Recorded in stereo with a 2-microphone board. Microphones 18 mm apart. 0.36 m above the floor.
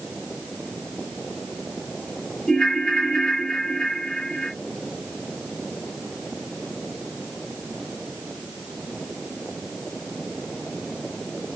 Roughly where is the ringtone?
Left.